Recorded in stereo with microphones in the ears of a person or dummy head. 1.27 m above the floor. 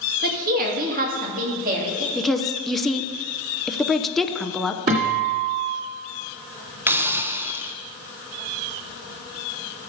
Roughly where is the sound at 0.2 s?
Right.